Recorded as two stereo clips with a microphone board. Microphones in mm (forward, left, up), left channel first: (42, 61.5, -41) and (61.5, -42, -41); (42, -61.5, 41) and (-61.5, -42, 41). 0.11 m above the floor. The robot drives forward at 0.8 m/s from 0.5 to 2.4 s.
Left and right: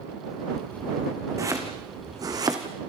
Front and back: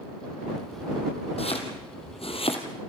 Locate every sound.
1.4 s chopping: 20° right, 3.5 m; by 2.6 s 30° right, 2.5 m